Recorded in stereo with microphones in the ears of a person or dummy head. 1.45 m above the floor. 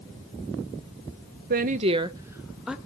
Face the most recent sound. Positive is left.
turn(degrees=-5)  # may be behind; listen again after turning